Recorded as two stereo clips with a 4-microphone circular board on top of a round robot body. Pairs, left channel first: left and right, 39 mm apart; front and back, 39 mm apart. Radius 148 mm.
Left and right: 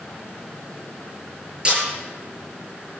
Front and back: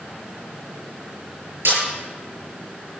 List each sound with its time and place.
1.6 s a snare drum: 155° right, 8 m